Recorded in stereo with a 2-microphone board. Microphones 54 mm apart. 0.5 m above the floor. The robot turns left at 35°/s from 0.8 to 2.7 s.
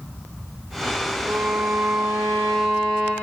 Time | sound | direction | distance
1.2 | a violin | 120° right | 6 m